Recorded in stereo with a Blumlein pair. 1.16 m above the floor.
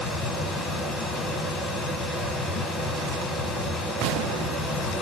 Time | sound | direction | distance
0.0 | a fan | 10° left | 1.1 m